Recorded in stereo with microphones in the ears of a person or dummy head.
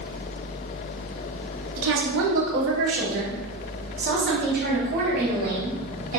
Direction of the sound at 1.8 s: 75° right (ahead or behind).